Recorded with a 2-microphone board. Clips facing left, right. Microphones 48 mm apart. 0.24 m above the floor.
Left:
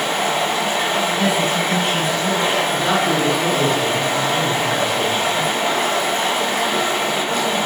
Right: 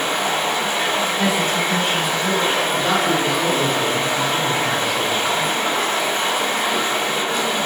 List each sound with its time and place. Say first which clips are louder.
0.0 s running water: left 1 dB; 50° left (ahead or behind), 1.5 m
1.2 s a woman speaking: left 1 dB; 35° left (ahead or behind), 1.8 m
2.7 s a man speaking: left 1 dB; 10° left (ahead or behind), 1.7 m